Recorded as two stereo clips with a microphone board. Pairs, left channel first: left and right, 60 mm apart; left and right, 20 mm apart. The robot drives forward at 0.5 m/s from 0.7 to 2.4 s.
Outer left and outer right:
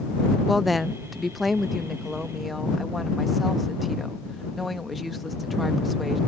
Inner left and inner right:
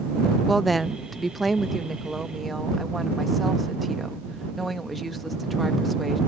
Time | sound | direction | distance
0.5 | a woman speaking | centre (ahead or behind) | ?